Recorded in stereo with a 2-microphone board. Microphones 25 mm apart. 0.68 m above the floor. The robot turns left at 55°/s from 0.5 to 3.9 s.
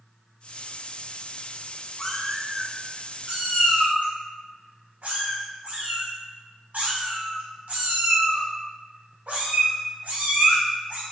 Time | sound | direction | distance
2.0 | a cat meowing | 15° left (ahead or behind) | 0.8 m